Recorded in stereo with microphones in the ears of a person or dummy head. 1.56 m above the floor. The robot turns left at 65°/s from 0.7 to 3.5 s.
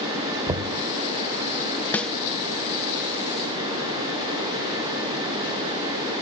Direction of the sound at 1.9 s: 10° left (ahead or behind).